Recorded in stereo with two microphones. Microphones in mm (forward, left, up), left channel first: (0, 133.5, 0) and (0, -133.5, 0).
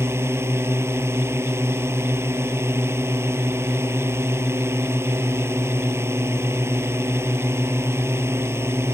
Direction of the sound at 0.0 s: 10° right (ahead or behind).